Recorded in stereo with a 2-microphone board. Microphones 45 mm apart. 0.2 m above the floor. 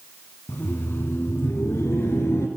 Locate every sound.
0.5 s laughter: 45° left (ahead or behind), 1.7 m; by 2.5 s 65° left (ahead or behind), 3 m